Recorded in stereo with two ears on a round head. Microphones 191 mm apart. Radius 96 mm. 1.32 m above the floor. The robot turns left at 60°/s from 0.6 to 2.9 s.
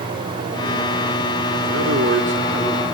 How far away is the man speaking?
About 4.5 m.